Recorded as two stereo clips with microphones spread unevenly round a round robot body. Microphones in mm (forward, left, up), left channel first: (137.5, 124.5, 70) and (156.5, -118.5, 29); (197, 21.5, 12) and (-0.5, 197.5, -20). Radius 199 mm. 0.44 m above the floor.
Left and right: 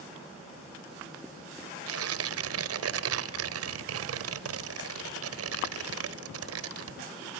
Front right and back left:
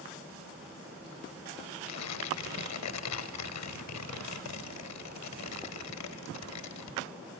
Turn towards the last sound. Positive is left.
turn(degrees=-90)